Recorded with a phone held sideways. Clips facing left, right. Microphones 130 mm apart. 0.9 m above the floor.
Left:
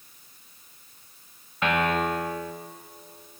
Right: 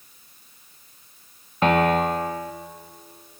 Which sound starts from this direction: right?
A piano, at 1.6 s.